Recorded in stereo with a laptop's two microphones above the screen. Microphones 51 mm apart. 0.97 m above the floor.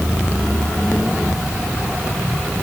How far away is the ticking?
No ticking in this recording.